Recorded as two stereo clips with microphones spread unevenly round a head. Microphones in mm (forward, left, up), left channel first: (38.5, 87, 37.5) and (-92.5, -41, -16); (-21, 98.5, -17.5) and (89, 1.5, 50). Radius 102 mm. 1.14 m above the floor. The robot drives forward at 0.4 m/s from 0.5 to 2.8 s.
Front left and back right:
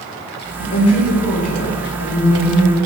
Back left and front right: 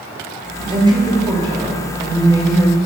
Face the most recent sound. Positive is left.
turn(degrees=30)